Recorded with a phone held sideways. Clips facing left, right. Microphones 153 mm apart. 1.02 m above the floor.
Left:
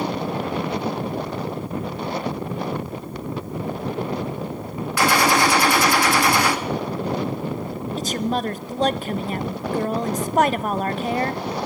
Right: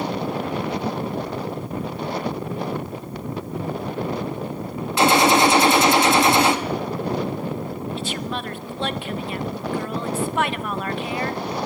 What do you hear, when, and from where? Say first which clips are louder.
5.0 s a gunshot: right 3 dB; 25° right (ahead or behind), 1.9 m
8.0 s a woman speaking: left 4 dB; 40° left (ahead or behind), 1.0 m